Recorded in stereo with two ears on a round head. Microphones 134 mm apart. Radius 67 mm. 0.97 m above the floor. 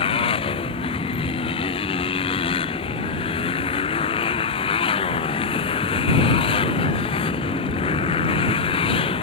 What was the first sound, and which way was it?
A motorcycle, 40° left (ahead or behind).